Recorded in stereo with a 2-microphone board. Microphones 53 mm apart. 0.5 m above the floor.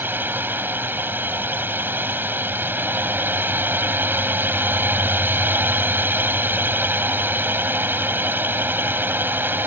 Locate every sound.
0.0 s a drone: 40° right (ahead or behind)